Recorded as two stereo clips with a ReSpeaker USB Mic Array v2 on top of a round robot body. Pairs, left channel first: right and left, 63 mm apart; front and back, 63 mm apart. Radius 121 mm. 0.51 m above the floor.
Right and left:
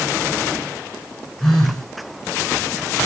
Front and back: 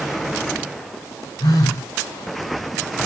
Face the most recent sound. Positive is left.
turn(degrees=-5)